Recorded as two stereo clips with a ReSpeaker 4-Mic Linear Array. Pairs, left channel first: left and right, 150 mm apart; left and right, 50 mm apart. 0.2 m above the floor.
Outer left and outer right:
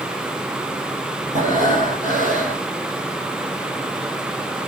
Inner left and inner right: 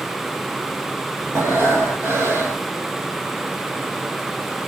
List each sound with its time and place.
1.3 s breathing: 65° right (ahead or behind), 6.5 m